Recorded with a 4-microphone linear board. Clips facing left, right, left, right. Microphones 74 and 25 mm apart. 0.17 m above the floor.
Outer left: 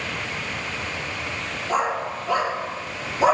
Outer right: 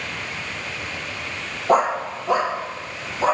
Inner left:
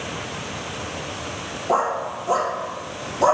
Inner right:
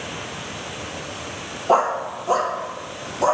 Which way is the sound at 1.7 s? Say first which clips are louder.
Outer right 6 dB, inner right 3 dB; 55° right (ahead or behind).